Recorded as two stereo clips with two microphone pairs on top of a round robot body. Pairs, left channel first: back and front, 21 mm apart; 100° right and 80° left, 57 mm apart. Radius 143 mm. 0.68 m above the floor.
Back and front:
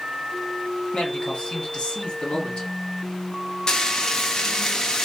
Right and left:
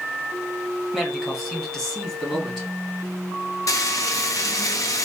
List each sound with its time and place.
0.9 s a man speaking: 170° left, 2 m; by 2.7 s 175° left, 3 m
3.7 s frying: 125° right, 0.8 m